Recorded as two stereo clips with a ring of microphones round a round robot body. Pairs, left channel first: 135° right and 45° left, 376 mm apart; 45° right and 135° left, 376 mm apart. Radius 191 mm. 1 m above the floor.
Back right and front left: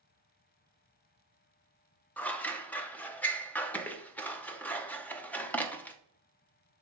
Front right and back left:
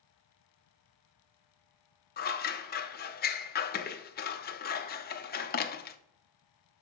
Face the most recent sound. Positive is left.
turn(degrees=-55)